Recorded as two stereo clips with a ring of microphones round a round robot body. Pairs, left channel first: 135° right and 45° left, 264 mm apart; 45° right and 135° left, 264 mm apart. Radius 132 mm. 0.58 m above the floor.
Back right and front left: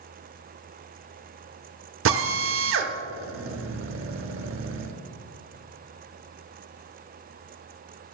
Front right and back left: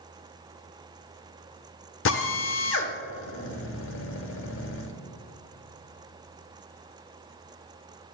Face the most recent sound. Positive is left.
turn(degrees=0)